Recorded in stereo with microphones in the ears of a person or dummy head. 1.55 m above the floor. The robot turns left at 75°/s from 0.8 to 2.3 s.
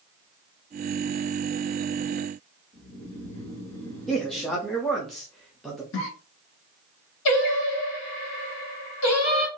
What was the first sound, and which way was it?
Snoring, 20° left (ahead or behind).